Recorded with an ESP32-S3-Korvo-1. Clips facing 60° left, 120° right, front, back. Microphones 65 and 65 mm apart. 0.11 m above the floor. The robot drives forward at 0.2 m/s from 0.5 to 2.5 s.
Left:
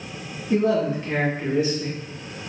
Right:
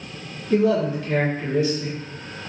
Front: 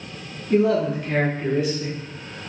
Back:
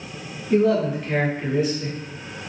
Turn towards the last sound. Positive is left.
turn(degrees=120)